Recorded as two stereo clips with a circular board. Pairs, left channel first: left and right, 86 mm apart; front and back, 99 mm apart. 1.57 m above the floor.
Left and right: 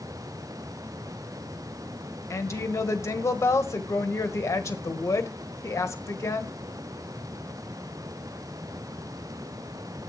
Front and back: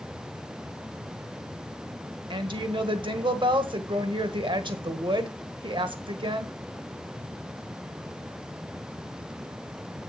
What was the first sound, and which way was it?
A woman speaking, 145° left.